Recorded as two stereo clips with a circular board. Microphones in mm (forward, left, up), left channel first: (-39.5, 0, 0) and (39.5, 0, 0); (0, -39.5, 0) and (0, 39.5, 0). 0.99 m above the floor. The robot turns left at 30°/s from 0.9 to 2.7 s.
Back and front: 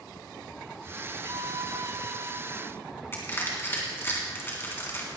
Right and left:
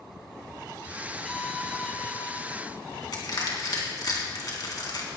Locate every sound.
1.2 s a violin: 5° right, 1.4 m; by 2.4 s 40° right, 1.4 m
3.1 s crushing: 120° right, 2.5 m